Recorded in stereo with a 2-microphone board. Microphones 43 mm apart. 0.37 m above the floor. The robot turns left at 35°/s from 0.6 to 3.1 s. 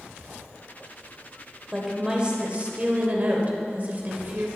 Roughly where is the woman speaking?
Ahead.